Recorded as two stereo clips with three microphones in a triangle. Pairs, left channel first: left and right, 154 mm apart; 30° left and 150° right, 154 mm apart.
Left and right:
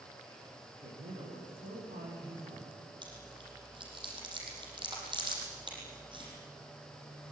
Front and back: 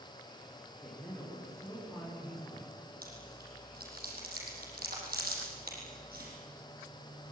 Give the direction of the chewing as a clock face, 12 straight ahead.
5 o'clock.